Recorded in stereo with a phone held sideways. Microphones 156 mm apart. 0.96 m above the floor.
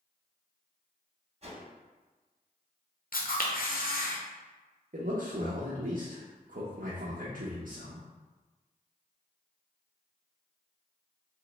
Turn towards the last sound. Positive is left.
turn(degrees=-65)  # may be behind; listen again after turning